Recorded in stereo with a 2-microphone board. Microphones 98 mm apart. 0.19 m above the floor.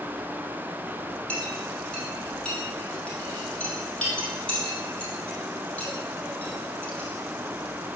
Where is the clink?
10° left (ahead or behind), 3 m.